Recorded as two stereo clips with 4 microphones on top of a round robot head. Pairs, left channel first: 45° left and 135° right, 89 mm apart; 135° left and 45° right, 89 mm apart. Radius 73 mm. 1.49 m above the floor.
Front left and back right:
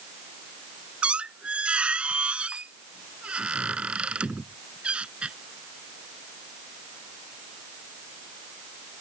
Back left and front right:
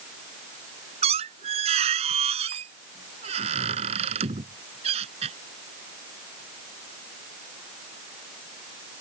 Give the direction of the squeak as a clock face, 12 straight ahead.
2 o'clock.